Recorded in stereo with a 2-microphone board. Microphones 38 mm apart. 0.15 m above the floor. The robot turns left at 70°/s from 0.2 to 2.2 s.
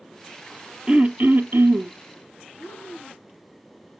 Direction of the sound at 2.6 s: 65° left (ahead or behind).